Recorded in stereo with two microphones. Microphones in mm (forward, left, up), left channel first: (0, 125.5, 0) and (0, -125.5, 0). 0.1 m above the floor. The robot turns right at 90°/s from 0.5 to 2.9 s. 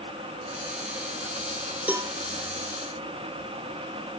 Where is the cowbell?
5° right (ahead or behind), 0.9 m; by 2.1 s 25° right (ahead or behind), 0.9 m.